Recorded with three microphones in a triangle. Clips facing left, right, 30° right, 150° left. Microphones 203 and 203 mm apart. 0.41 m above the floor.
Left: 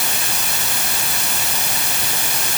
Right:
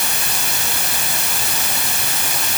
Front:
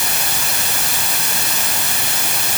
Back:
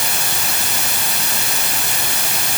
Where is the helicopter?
No helicopter in this recording.